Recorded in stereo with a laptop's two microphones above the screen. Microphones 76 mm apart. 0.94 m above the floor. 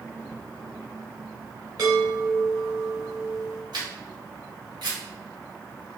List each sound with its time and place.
1.8 s a chime: 55° right (ahead or behind), 1.7 m
3.7 s a camera shutter: 70° right (ahead or behind), 1.7 m